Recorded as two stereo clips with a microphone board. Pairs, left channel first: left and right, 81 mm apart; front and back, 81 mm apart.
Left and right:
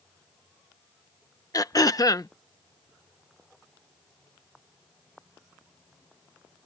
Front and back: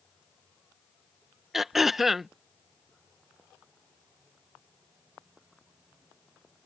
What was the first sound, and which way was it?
Throat clearing, 95° left.